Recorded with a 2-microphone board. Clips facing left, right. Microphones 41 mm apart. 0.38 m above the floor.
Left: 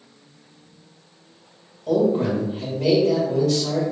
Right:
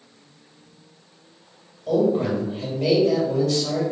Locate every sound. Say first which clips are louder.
1.9 s a man speaking: left 1 dB; 5° left (ahead or behind), 1.5 m